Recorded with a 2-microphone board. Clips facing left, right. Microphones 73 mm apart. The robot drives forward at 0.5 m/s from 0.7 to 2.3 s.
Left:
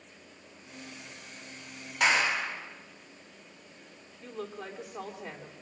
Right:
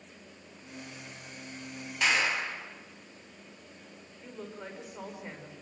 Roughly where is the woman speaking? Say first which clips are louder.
Left 3 dB; left.